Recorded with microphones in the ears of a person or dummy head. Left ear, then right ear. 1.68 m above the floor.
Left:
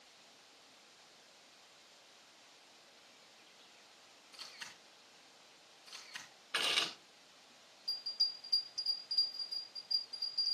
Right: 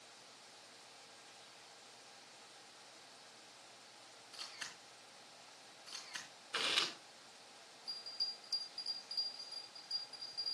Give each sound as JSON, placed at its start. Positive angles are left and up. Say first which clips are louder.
{"t": 4.3, "sound": "a camera shutter", "louder": "right 1 dB", "side_deg": -15, "distance_m": 4.0}
{"t": 6.5, "sound": "chewing", "louder": "left 2 dB", "side_deg": 10, "distance_m": 3.0}
{"t": 7.9, "sound": "a bell", "louder": "left 6 dB", "side_deg": 5, "distance_m": 7.0}